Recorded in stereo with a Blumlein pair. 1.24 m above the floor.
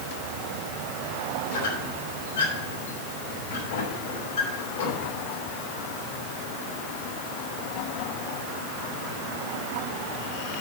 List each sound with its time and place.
1.5 s a squeak: 65° left, 3 m